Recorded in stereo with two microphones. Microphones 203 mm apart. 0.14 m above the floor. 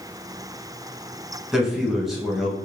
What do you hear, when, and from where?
1.5 s a man speaking: centre (ahead or behind), 1.3 m